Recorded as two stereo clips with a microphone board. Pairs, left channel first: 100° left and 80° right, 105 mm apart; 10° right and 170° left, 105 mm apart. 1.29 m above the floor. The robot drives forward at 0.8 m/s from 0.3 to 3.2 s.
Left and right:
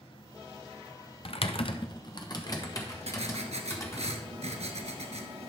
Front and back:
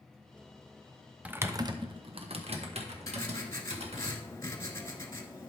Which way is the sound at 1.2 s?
95° left.